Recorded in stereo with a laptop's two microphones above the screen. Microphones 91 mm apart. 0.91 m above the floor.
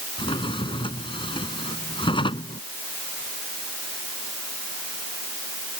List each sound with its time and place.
0.2 s a drawer: 70° left (ahead or behind)